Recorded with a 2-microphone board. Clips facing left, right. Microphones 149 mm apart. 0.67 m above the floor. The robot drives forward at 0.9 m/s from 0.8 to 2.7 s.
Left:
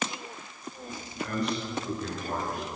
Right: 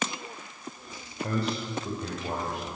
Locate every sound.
1.2 s a man speaking: 35° right (ahead or behind), 2.5 m; by 2.8 s 25° right (ahead or behind), 3.5 m